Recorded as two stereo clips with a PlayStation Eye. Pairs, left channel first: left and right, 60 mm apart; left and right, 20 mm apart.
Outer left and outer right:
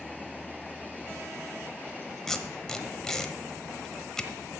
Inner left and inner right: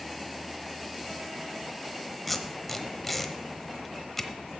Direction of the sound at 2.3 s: 10° left (ahead or behind).